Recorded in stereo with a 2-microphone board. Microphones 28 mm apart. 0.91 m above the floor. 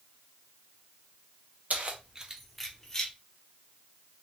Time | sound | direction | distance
1.7 | keys jangling | 65° right (ahead or behind) | 0.6 m